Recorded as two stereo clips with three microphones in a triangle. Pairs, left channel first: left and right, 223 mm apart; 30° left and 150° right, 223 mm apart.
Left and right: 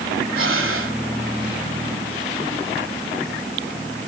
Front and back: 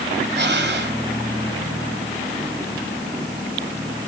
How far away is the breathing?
About 2.5 m.